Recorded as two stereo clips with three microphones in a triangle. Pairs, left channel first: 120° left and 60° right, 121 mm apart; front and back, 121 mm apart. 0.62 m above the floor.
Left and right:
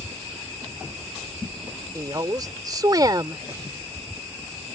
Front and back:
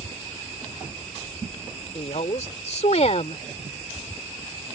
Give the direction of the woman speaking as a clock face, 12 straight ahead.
12 o'clock.